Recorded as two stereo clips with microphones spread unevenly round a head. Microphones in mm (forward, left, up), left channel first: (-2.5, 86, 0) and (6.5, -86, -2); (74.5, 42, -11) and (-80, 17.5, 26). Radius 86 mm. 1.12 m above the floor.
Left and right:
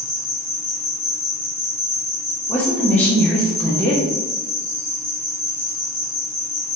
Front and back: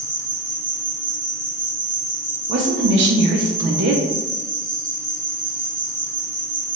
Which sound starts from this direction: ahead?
An insect, at 0.0 s.